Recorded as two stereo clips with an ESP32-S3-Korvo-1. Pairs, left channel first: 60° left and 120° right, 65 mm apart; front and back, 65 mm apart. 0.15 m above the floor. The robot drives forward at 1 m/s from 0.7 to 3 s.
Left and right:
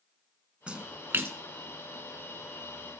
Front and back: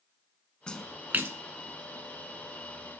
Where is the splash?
65° right, 0.6 m; by 1.4 s 150° right, 0.8 m.